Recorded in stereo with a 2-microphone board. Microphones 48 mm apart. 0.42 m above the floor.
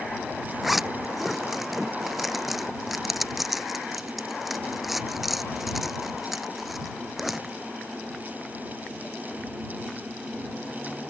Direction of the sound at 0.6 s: Centre (ahead or behind).